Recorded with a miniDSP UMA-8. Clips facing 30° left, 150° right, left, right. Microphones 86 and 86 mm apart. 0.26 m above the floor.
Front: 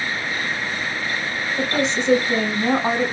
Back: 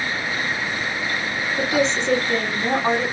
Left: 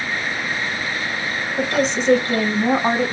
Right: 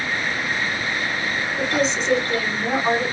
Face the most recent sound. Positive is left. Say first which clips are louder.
# back 2 dB, left 3 dB
turn(degrees=100)